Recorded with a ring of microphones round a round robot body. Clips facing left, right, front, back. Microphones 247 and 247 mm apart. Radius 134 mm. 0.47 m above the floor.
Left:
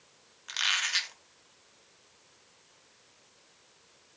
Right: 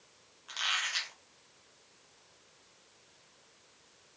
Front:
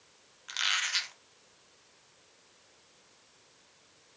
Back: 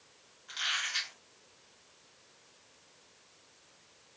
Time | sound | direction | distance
0.5 | a squeak | 30° left | 0.7 m